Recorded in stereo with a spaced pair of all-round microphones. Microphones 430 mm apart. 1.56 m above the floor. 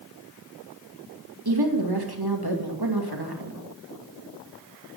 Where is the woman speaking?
60° right (ahead or behind), 2.5 m.